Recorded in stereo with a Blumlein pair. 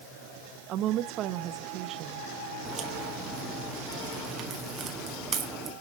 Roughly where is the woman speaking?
Ahead right.